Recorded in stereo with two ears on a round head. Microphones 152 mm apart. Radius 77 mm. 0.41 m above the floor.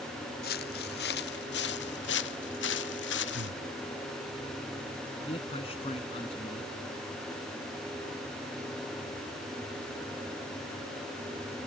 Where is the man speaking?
35° left (ahead or behind).